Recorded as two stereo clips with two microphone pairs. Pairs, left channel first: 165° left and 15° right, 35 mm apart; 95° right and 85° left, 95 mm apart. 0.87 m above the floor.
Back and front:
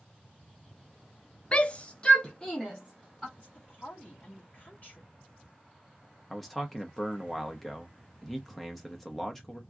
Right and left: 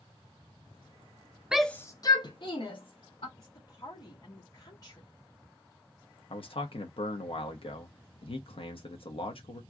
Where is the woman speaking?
145° right, 1.8 m.